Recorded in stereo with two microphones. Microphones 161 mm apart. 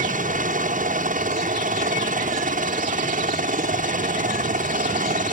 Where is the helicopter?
55° right (ahead or behind).